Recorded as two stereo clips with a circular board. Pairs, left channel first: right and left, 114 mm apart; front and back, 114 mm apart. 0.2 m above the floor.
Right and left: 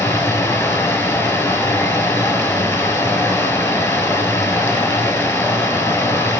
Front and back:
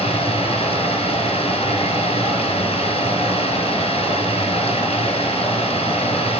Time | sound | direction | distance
0.0 | running water | 20° right | 1.6 m